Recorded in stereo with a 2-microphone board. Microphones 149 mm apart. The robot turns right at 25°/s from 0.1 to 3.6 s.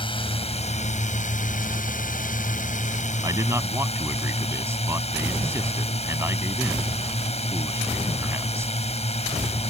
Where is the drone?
40° left; by 9.7 s 130° left.